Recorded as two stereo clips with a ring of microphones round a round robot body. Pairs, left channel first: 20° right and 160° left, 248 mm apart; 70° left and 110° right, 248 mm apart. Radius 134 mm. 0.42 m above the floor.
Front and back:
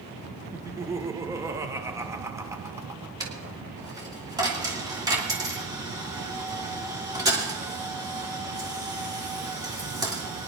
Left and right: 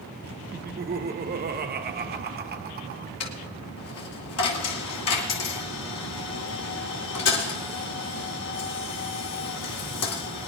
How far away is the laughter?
About 1.2 m.